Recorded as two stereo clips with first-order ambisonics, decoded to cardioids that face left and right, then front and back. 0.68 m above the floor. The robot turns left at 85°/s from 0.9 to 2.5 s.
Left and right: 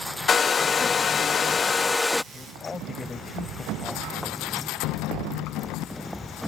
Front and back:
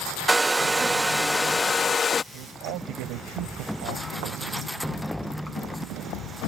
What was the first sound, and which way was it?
A hair dryer, 115° left.